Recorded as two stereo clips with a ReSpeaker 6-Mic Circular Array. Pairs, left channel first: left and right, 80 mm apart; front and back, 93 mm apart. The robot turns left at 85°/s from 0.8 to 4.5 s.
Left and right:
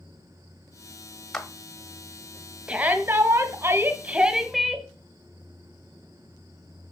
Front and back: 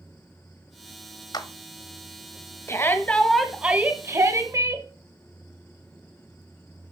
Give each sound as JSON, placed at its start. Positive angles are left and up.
{"t": 1.3, "sound": "a clap", "azimuth_deg": 5, "distance_m": 1.0}
{"t": 2.7, "sound": "a shout", "azimuth_deg": -25, "distance_m": 1.1}